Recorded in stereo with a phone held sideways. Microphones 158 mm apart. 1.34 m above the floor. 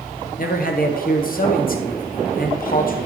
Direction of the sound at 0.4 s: 65° left (ahead or behind).